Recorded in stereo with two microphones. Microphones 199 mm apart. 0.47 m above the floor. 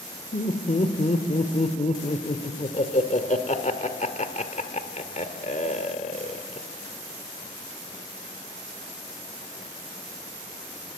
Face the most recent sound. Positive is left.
turn(degrees=35)  # may be behind; listen again after turning